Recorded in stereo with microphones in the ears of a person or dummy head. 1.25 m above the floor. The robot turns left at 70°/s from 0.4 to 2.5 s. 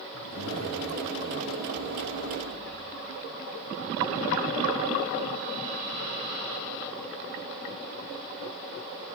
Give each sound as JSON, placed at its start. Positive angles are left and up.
{"t": 0.1, "sound": "a zipper", "azimuth_deg": 110, "distance_m": 1.9}